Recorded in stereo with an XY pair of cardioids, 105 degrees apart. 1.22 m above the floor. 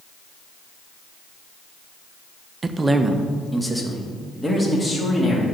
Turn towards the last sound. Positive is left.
turn(degrees=15)